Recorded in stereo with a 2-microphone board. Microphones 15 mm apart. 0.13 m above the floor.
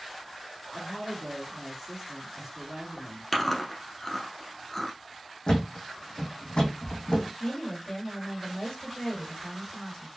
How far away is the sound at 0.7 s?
About 1.7 m.